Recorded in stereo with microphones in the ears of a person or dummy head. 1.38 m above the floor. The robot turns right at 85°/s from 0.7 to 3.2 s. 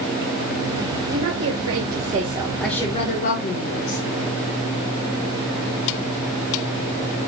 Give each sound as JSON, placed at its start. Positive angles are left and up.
{"t": 1.1, "sound": "a woman speaking", "azimuth_deg": -125, "distance_m": 1.4}